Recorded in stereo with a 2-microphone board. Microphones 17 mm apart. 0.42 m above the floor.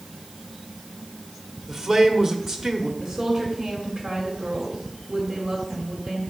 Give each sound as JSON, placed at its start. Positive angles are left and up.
{"t": 1.7, "sound": "a man speaking", "side_deg": -30, "distance_m": 1.1}
{"t": 3.0, "sound": "a woman speaking", "side_deg": -25, "distance_m": 2.0}